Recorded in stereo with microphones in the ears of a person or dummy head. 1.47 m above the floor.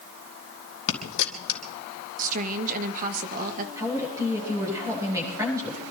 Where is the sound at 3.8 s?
20° right (ahead or behind), 9.5 m.